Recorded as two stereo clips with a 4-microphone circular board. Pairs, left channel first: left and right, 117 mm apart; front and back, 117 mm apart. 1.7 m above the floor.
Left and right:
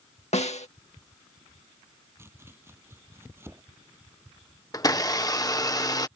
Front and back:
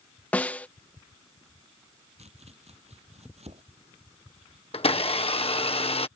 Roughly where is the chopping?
Behind.